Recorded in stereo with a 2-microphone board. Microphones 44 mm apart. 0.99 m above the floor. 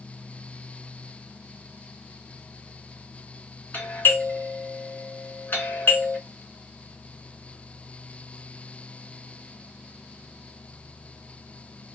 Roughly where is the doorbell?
Left.